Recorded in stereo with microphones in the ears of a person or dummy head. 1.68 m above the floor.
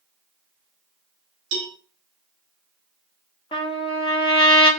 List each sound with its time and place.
1.5 s a cowbell: 70° right (ahead or behind), 0.9 m
3.5 s a trumpet: 25° left (ahead or behind), 0.9 m